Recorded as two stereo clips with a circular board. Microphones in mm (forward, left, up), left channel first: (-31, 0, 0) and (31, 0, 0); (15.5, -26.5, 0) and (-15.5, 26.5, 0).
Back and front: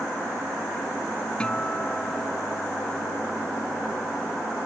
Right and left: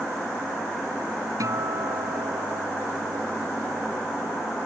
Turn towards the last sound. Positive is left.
turn(degrees=105)